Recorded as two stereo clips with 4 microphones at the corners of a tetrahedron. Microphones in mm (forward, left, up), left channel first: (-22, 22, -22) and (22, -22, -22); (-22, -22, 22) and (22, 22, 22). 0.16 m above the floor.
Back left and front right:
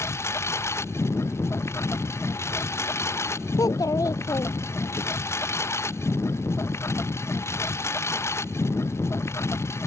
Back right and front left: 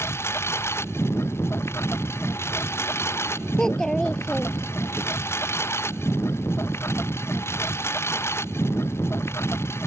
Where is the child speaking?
145° left.